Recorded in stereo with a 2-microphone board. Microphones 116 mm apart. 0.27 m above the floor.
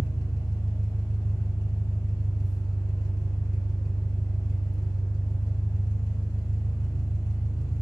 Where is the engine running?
30° left (ahead or behind), 0.7 m.